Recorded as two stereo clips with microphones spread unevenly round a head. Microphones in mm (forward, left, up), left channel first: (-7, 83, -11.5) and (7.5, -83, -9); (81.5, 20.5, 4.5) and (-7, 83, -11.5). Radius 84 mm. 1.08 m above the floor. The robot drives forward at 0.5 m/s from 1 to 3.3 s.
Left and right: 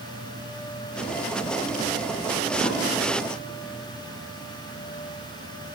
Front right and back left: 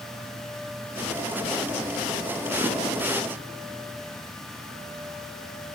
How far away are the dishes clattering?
About 8.5 m.